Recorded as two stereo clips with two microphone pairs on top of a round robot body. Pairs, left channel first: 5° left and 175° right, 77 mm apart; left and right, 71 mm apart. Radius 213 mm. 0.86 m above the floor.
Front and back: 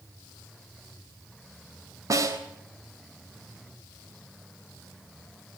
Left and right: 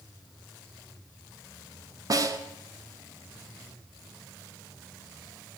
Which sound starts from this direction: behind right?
A snare drum, at 2.1 s.